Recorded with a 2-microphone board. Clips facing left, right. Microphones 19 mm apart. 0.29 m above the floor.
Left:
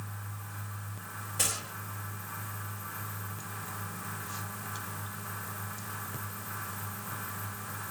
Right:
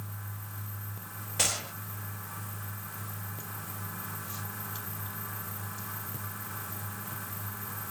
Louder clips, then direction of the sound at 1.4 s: Right 3 dB; 30° right (ahead or behind).